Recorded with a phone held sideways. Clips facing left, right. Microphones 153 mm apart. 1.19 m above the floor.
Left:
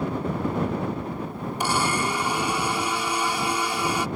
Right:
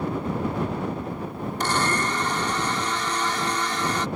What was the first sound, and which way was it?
A blender, 10° left (ahead or behind).